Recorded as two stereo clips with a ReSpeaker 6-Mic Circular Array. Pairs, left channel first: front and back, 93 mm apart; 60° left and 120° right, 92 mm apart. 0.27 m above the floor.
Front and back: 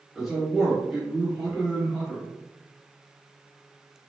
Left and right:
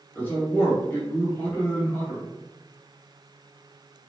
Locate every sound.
0.1 s a man speaking: 90° left, 1.6 m